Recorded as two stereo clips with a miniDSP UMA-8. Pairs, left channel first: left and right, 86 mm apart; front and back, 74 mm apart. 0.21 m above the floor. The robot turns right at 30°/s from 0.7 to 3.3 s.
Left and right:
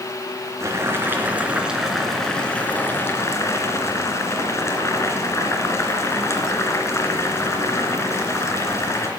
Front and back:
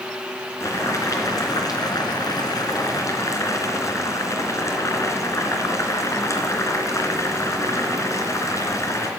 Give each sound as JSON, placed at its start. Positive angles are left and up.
{"t": 0.6, "sound": "boiling", "azimuth_deg": -40, "distance_m": 2.5}